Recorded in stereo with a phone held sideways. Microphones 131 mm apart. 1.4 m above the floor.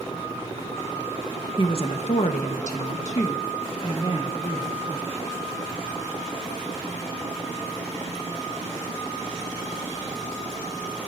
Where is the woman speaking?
40° left (ahead or behind), 1.4 m; by 5.2 s 35° left (ahead or behind), 3.5 m.